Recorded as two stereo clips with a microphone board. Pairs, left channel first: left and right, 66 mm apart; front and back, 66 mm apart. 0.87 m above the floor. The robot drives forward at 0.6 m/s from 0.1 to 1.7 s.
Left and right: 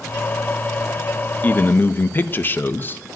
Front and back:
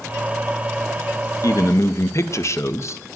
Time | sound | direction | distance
1.4 | a man speaking | 25° left | 0.7 m